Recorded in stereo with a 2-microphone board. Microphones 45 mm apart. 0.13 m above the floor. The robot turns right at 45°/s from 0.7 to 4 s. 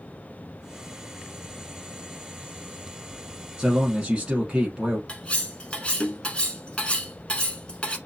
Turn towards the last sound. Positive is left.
turn(degrees=25)  # may be behind; listen again after turning